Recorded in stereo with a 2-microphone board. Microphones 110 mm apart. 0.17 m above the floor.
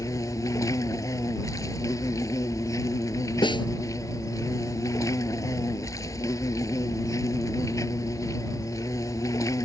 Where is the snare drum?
45° left (ahead or behind).